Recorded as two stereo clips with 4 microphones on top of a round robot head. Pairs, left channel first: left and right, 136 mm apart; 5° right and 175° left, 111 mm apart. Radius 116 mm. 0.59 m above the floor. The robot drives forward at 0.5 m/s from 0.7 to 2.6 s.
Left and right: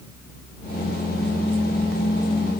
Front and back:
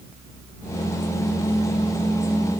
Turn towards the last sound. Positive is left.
No sound to turn to.